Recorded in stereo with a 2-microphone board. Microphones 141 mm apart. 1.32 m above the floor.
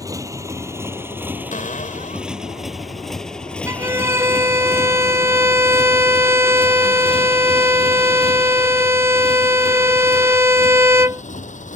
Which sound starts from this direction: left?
A cupboard door, at 1.5 s.